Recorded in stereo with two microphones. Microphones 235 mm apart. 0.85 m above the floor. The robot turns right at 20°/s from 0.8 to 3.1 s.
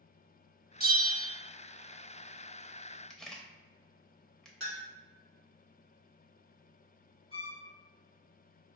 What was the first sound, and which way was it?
A bell, 40° right (ahead or behind).